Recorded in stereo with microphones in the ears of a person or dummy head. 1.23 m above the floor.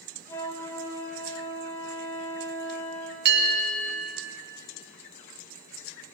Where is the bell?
50° right (ahead or behind), 1.9 m.